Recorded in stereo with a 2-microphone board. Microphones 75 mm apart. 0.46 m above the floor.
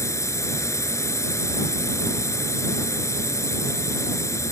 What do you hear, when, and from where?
0.0 s a drone: 45° left (ahead or behind)